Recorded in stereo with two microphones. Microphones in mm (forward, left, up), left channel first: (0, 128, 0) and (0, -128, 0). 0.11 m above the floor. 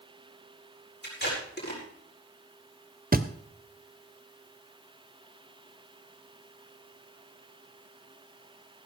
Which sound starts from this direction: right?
A thud, at 3.1 s.